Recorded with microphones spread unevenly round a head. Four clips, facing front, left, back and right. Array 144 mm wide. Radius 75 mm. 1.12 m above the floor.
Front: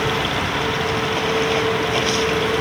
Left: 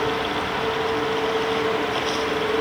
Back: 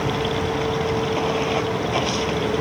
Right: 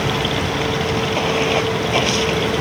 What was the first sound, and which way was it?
Running water, 80° right.